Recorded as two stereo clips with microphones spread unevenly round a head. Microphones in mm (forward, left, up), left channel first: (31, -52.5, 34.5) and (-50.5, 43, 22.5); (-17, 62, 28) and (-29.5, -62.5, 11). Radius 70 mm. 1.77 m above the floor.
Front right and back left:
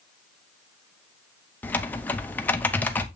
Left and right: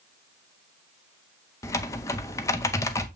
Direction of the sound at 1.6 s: 25° left.